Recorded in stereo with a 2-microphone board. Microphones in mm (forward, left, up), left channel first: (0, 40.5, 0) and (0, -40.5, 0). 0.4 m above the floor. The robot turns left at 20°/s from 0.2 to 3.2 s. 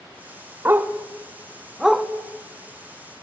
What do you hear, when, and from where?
0.7 s a dog barking: 30° right (ahead or behind), 0.8 m; by 2.1 s centre (ahead or behind), 0.8 m